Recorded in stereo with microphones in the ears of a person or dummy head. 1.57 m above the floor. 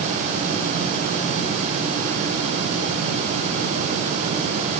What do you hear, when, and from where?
Only background noise.